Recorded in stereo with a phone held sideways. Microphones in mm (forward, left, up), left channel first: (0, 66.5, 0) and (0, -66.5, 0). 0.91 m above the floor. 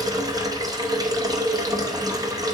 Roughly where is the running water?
Right.